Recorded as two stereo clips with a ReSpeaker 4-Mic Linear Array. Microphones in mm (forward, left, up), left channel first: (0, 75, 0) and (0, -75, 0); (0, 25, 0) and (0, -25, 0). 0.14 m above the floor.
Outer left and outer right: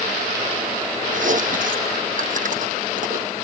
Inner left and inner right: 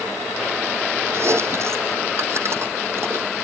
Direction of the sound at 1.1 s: 60° right (ahead or behind).